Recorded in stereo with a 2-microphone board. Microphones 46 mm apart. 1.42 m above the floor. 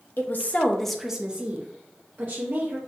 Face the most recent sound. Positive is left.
turn(degrees=-55)  # may be behind; listen again after turning